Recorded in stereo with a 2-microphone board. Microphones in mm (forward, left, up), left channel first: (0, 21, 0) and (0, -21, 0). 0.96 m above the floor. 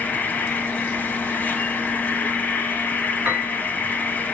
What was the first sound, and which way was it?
An insect, 45° left (ahead or behind).